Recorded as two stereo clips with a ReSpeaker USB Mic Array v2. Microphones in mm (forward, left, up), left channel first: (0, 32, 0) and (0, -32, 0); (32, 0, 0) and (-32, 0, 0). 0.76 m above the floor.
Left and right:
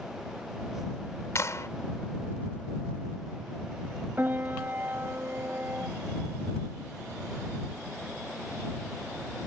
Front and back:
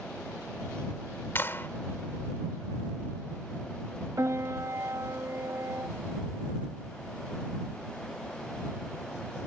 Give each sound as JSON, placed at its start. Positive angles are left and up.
{"t": 1.4, "sound": "a clap", "azimuth_deg": 50}
{"t": 4.2, "sound": "a piano", "azimuth_deg": -145}